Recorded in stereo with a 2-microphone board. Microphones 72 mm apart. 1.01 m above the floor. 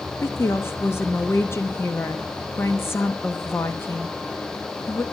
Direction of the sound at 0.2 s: 35° left (ahead or behind).